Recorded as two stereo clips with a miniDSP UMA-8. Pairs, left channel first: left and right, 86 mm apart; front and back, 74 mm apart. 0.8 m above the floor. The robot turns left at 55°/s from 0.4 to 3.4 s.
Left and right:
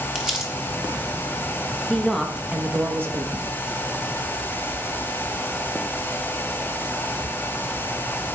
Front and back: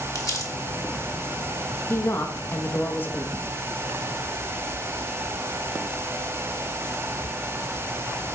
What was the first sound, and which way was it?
Crumpling, 10° right.